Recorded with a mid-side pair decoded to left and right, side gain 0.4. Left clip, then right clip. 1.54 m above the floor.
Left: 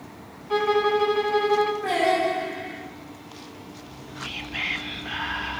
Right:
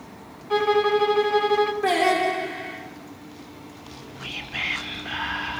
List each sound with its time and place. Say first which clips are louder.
0.5 s a violin: right 1 dB; 10° right, 0.9 m
1.8 s singing: right 1 dB; 65° right, 4 m
3.8 s whispering: left 2 dB; 10° right, 1.1 m